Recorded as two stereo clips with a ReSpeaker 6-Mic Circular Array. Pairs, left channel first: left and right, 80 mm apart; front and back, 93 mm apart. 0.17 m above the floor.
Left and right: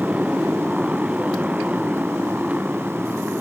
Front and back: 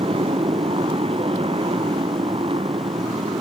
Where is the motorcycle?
170° right; by 3.4 s 165° right.